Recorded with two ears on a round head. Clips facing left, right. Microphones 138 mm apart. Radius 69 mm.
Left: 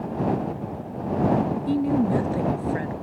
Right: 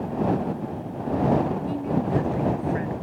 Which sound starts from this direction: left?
A woman speaking, at 1.7 s.